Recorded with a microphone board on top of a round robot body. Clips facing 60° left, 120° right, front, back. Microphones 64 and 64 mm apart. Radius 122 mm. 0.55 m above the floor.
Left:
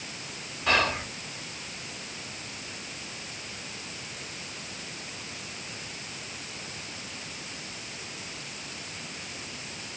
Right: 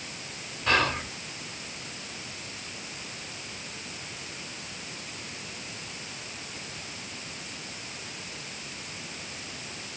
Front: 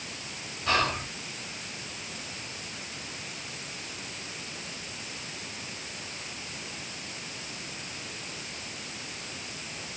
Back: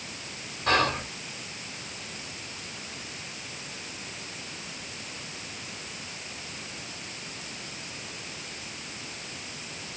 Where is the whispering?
145° left, 2 m.